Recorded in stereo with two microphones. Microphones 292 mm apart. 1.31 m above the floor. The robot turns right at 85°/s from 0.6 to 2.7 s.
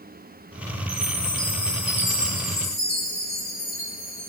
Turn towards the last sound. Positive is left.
turn(degrees=125)